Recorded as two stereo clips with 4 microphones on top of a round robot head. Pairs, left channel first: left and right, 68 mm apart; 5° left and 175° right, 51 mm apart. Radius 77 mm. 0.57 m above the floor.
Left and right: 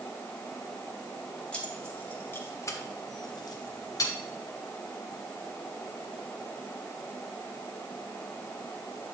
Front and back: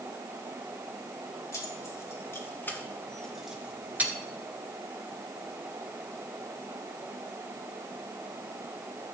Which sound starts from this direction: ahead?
Keys jangling, at 1.5 s.